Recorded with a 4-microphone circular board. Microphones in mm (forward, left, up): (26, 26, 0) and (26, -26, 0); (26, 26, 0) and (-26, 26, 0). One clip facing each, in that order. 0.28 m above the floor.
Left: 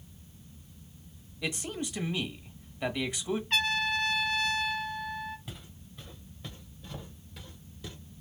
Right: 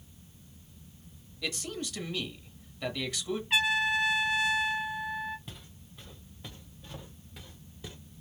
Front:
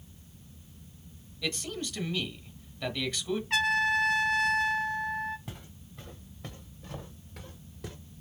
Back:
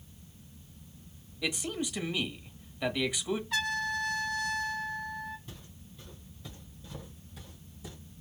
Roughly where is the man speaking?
Behind left.